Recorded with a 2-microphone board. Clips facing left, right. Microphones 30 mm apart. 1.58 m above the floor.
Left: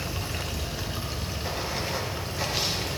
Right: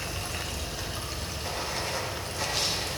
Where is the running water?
10° left (ahead or behind), 0.8 m.